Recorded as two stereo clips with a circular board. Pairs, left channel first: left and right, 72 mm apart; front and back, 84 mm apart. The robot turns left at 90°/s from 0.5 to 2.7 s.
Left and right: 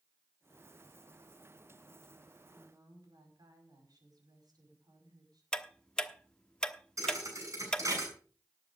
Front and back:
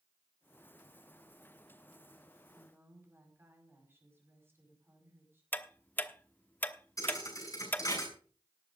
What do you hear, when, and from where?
2.5 s a woman speaking: 100° right, 5.5 m; by 5.4 s 115° right, 5.5 m
5.5 s ticking: 30° left, 1.0 m
7.0 s a thud: 45° right, 7 m